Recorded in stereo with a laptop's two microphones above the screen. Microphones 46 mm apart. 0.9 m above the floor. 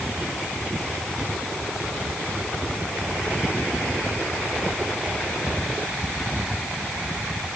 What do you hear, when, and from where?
Only background noise.